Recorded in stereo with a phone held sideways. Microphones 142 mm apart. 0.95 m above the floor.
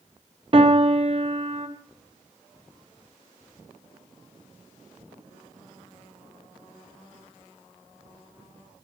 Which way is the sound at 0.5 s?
35° right (ahead or behind).